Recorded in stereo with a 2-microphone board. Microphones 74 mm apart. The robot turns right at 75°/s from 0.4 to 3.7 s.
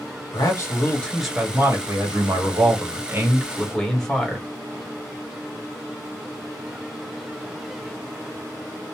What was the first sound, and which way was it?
A man speaking, 120° left.